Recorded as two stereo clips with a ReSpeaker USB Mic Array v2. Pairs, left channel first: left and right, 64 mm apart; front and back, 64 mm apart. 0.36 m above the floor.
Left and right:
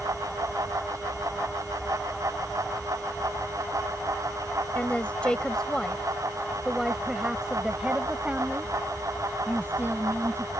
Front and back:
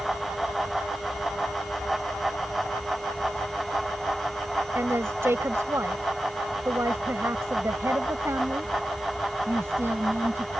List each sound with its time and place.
4.8 s a woman speaking: 150° left; by 10.5 s 135° right